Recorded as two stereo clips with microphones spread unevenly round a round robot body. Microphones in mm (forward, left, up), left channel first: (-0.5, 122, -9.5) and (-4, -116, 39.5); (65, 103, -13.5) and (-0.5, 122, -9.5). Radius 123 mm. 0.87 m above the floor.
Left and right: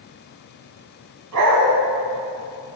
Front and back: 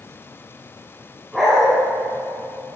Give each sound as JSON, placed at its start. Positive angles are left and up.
{"t": 1.3, "sound": "a dog barking", "azimuth_deg": -105, "distance_m": 2.5}